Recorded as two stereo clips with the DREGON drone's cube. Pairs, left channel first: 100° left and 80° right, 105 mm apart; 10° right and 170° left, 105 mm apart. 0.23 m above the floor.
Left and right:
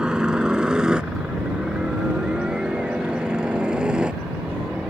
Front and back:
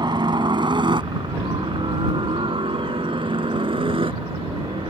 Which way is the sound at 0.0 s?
160° right.